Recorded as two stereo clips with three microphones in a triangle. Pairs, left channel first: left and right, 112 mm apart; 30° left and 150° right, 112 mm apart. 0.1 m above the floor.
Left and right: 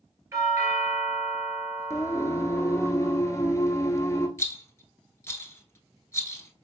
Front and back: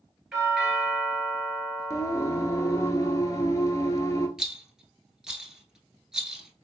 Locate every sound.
0.3 s a doorbell: 70° right, 1.9 m
1.9 s singing: 55° left, 0.7 m
4.4 s a rattle: 130° left, 0.8 m